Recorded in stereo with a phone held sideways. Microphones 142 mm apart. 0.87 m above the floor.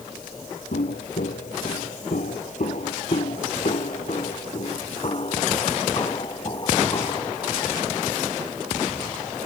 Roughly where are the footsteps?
Left.